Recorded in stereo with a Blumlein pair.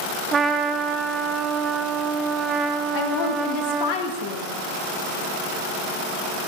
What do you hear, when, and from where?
0.3 s a trumpet: 20° right, 0.6 m
2.9 s a woman speaking: 45° left, 1.7 m